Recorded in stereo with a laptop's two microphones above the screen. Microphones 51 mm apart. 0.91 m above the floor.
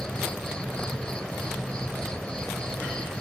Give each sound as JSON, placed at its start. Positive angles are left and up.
{"t": 0.0, "sound": "an insect", "side_deg": 20}